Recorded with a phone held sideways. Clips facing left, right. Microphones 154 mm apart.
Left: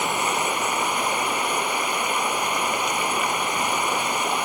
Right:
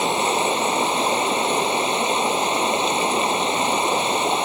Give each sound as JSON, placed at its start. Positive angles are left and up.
{"t": 0.0, "sound": "running water", "side_deg": -25}